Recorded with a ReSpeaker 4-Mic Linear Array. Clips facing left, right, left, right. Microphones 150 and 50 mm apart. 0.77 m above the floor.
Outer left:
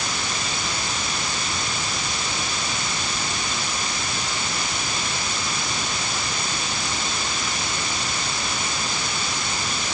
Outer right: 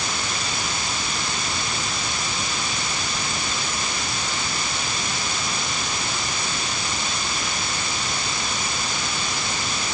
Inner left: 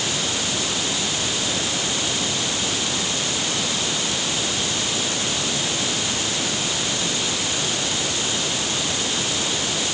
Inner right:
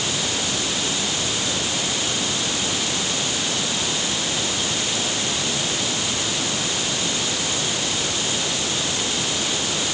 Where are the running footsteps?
No running footsteps in this recording.